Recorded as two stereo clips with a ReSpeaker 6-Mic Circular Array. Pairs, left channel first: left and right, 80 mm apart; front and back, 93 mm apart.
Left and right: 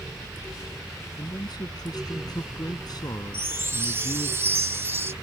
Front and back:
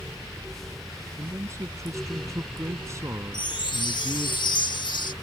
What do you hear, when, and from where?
1.2 s a man speaking: 125° left
3.3 s a chime: 30° right